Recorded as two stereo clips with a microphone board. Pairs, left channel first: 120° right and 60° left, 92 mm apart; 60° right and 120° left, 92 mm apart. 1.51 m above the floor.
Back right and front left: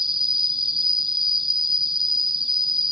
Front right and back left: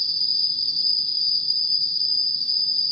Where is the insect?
80° left.